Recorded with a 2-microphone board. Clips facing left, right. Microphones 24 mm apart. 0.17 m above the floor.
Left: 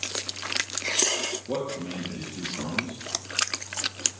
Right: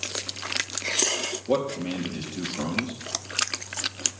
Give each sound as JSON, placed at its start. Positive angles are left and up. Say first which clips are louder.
{"t": 1.5, "sound": "a man speaking", "louder": "right 5 dB", "side_deg": -40, "distance_m": 3.0}